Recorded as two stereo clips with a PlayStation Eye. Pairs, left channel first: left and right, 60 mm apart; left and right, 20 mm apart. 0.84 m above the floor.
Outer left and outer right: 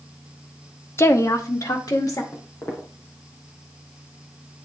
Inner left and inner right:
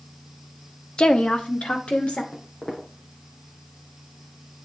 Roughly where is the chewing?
I don't hear chewing.